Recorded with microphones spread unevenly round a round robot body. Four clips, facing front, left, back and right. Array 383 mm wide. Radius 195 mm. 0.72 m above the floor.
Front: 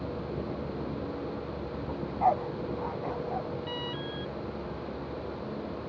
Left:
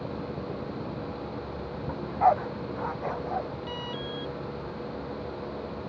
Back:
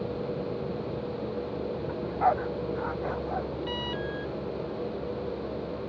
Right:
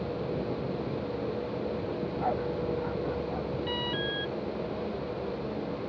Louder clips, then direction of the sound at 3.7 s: Right 3 dB, back 3 dB; 155° right.